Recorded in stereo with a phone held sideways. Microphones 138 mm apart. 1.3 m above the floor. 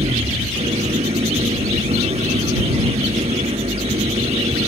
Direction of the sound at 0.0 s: 50° right (ahead or behind).